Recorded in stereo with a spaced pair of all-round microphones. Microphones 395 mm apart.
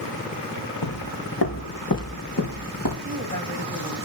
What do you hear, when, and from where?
0.8 s footsteps: 55° left (ahead or behind), 4 m; by 3.0 s 50° left (ahead or behind), 5 m
3.0 s a woman speaking: 45° right (ahead or behind), 3.5 m